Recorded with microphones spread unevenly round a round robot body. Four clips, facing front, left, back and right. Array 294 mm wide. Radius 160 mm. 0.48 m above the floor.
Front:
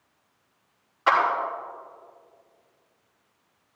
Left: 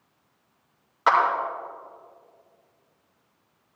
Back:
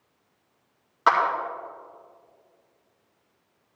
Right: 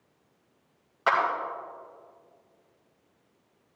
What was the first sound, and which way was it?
A clap, 175° right.